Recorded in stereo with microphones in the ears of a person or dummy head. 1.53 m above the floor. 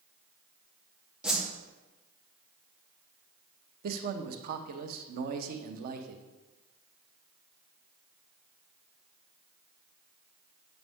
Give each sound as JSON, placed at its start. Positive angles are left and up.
{"t": 1.2, "sound": "a whoosh", "side_deg": 0, "distance_m": 1.4}
{"t": 3.8, "sound": "a man speaking", "side_deg": -55, "distance_m": 0.7}